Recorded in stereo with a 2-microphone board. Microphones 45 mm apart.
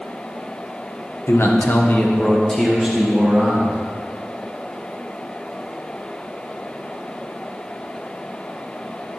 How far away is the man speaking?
About 1.0 m.